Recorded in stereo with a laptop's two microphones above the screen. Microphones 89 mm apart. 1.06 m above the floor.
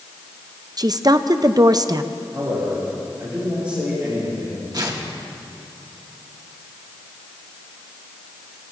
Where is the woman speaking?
45° right (ahead or behind), 0.6 m.